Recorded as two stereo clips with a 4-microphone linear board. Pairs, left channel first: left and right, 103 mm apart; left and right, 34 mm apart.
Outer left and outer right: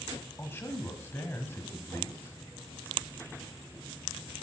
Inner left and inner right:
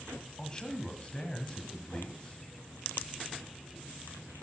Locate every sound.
0.4 s a man speaking: 25° left (ahead or behind), 1.3 m